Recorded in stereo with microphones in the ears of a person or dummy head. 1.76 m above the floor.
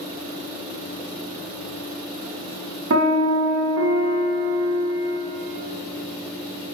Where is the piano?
80° right, 0.9 m.